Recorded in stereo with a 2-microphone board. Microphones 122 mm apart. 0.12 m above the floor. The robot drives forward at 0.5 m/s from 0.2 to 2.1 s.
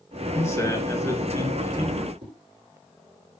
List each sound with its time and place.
0.3 s a man speaking: 20° left (ahead or behind), 2 m; by 2.1 s 25° left (ahead or behind), 1.8 m
2.2 s a whoosh: 55° right (ahead or behind), 6.5 m